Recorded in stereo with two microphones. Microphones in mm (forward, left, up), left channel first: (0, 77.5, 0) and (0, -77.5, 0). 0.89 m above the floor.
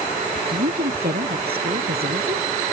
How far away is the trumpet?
I don't hear a trumpet.